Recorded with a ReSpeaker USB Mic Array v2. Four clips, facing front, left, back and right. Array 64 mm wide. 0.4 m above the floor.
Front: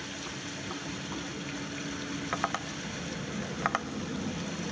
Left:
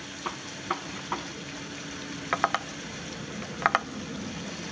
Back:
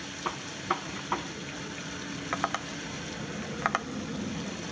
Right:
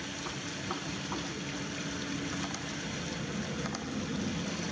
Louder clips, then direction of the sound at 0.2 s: Left 8 dB, back 12 dB; 150° left.